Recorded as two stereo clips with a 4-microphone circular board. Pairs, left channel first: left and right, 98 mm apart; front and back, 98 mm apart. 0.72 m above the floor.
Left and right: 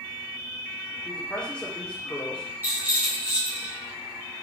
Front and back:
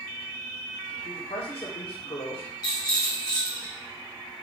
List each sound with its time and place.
1.1 s a man speaking: 15° left, 1.8 m
2.6 s a rattle: 30° right, 1.5 m